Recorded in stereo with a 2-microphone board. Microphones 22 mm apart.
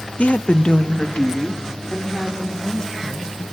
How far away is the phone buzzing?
No phone buzzing in this recording.